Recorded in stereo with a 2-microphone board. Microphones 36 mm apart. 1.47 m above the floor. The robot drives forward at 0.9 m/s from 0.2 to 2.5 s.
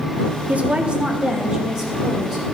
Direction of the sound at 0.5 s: 45° right (ahead or behind).